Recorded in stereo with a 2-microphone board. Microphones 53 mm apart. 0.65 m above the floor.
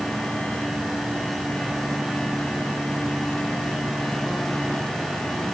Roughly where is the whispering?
No whispering in this recording.